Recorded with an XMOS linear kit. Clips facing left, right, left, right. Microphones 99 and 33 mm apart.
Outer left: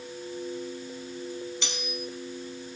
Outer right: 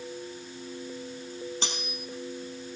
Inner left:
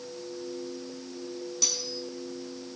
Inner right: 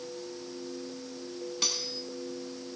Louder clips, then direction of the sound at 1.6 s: Outer left 1 dB, inner right 1 dB; 35° right (ahead or behind).